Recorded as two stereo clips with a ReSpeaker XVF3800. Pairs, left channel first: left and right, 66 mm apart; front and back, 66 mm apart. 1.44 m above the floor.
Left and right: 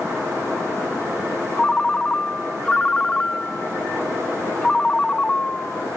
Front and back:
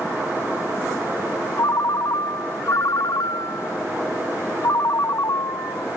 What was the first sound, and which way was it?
A ringtone, 15° left.